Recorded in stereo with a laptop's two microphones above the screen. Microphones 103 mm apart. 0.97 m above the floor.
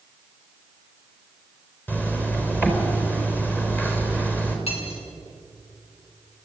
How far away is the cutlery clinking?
About 5 m.